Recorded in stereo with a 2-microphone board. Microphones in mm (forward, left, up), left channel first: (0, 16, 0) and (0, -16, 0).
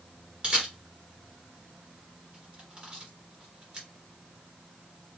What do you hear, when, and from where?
0.4 s a camera shutter: 30° right (ahead or behind), 2.5 m